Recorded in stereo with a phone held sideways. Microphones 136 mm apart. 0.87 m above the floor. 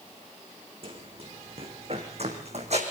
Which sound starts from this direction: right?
Running footsteps, at 0.8 s.